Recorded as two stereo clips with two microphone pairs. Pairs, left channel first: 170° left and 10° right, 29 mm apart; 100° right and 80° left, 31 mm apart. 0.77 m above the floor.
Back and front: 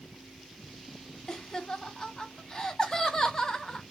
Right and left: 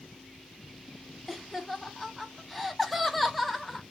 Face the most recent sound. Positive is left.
turn(degrees=175)